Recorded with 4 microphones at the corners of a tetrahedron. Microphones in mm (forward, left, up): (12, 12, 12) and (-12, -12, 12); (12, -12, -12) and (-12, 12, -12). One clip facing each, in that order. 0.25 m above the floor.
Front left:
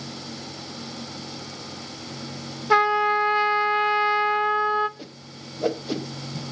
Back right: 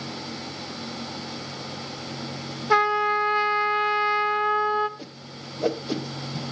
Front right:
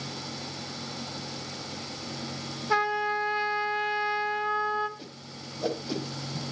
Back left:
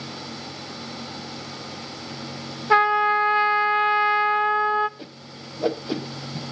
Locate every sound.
2.7 s a trumpet: 125° left, 0.5 m
5.0 s a whoosh: 130° left, 1.2 m